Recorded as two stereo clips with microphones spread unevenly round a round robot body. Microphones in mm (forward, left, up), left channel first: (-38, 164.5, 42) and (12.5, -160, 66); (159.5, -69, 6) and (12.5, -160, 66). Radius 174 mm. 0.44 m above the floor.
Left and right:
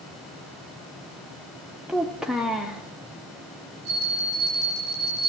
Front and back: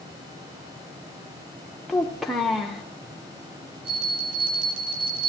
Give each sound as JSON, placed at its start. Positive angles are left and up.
{"t": 1.9, "sound": "a child speaking", "azimuth_deg": 15, "distance_m": 0.7}
{"t": 3.9, "sound": "a bell", "azimuth_deg": -115, "distance_m": 7.0}